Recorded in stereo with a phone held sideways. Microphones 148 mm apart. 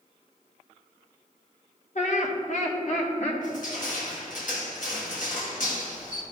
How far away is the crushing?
About 1.4 m.